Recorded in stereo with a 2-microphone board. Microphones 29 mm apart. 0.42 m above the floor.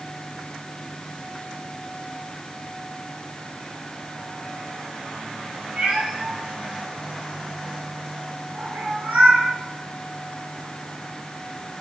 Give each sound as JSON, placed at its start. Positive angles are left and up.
{"t": 5.8, "sound": "a cat meowing", "side_deg": -45, "distance_m": 2.5}